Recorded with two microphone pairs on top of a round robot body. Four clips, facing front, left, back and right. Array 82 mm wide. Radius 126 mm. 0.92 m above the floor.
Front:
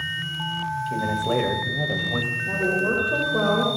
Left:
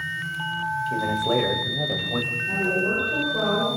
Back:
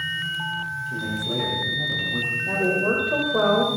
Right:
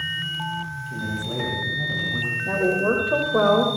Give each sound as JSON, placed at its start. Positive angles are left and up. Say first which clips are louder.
{"t": 0.9, "sound": "a man speaking", "louder": "left 8 dB, front 5 dB", "azimuth_deg": 50, "distance_m": 6.0}
{"t": 2.5, "sound": "a woman speaking", "louder": "right 4 dB, back 1 dB", "azimuth_deg": -110, "distance_m": 5.0}